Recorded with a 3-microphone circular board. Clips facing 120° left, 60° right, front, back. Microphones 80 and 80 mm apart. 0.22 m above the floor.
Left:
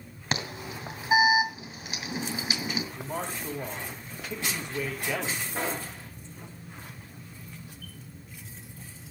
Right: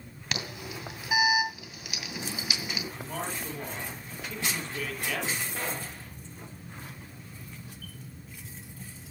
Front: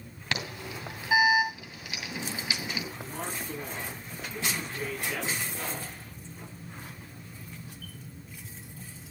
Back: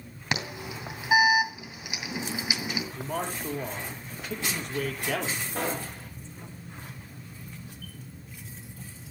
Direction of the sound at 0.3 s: 125° left.